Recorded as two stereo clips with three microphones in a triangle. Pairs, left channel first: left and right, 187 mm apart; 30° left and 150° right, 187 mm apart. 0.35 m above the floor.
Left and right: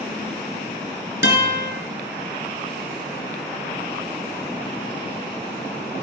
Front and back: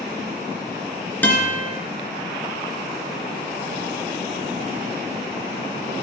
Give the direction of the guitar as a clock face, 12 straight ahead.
8 o'clock.